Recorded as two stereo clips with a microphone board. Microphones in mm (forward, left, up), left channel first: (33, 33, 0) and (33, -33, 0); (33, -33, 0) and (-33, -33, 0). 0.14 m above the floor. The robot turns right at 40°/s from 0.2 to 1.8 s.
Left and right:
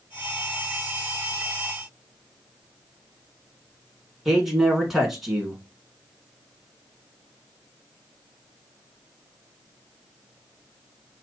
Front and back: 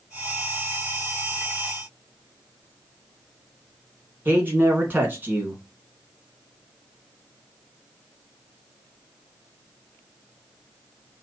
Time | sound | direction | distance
4.2 | a man speaking | 170° right | 1.2 m